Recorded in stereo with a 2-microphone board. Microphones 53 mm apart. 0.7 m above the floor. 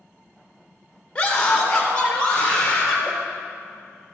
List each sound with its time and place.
1.1 s a scream: 20° left (ahead or behind), 1.4 m; by 3.1 s 15° left (ahead or behind), 3.5 m